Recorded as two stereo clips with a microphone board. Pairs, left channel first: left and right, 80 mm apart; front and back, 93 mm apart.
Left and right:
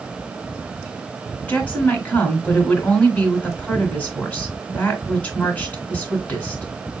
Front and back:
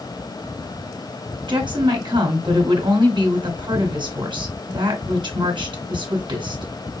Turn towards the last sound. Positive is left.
turn(degrees=160)